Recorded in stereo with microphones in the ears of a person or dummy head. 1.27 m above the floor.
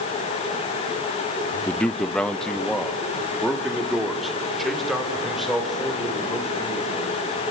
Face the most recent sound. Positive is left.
turn(degrees=0)  # may be behind; listen again after turning